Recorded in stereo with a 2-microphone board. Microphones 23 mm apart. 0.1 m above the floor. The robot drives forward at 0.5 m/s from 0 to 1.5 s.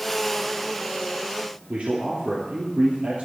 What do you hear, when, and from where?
1.7 s a man speaking: 60° right (ahead or behind), 3 m